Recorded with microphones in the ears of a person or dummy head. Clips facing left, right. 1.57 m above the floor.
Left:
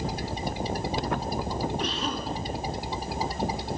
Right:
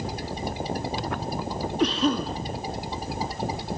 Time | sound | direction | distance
1.8 | a cough | 65° right (ahead or behind) | 1.0 m